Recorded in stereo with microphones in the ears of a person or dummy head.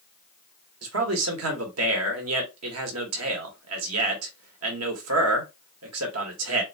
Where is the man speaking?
75° right (ahead or behind), 1.2 m.